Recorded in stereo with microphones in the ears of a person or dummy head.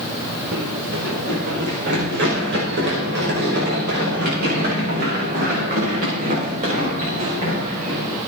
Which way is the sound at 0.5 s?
70° right (ahead or behind).